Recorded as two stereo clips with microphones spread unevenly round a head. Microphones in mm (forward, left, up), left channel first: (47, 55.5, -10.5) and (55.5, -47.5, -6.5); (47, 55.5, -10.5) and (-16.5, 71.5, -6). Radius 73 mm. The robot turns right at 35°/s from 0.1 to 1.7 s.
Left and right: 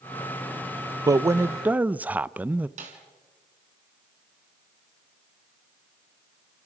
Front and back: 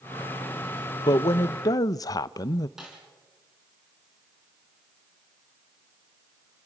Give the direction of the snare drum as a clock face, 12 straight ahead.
4 o'clock.